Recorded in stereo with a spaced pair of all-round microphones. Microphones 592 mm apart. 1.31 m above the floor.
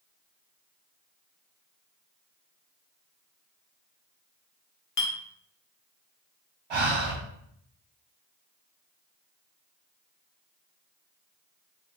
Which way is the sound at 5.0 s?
65° left (ahead or behind).